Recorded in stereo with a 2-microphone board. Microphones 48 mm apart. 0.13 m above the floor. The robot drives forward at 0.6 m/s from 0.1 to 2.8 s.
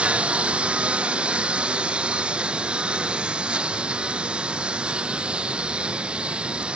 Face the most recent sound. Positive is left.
turn(degrees=-25)  # may be behind; listen again after turning